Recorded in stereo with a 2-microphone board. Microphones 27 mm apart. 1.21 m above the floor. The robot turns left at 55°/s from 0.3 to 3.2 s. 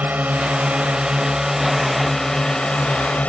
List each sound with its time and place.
0.0 s a drone: 95° right; by 3.3 s 110° left